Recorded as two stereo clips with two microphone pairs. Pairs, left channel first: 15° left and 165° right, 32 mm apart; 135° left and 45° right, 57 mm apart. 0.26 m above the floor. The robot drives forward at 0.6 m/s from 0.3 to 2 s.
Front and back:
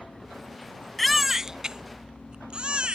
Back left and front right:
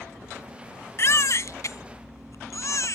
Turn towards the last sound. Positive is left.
turn(degrees=140)